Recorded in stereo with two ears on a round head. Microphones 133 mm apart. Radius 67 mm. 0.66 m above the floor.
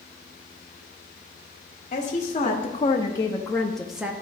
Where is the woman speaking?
50° left (ahead or behind), 1.2 m; by 4.1 s 10° right (ahead or behind), 0.7 m.